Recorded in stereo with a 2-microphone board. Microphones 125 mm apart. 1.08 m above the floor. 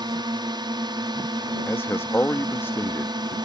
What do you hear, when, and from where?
0.0 s a drone: 40° right (ahead or behind)
1.7 s a man speaking: 20° left (ahead or behind)